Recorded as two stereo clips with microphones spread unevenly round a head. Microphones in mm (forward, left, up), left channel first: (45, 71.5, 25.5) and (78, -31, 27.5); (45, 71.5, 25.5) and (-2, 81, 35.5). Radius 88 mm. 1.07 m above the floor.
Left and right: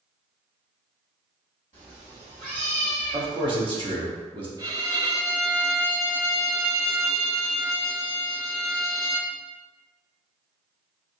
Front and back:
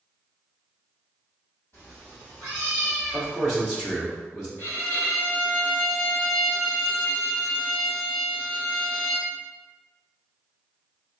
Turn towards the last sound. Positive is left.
turn(degrees=-55)